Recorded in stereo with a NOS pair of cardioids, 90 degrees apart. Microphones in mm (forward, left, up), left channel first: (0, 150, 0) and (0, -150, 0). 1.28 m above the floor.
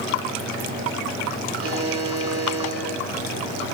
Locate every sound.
1.6 s a buzzer: 50° right, 3.5 m